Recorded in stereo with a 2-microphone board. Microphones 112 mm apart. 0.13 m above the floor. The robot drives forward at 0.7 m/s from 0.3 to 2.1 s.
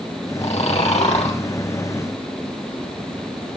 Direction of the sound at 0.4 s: 70° left (ahead or behind).